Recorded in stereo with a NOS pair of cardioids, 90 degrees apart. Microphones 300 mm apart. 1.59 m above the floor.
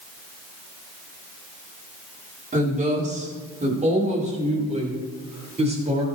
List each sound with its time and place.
2.5 s a woman speaking: 25° right, 4.5 m; by 6.0 s 20° right, 7 m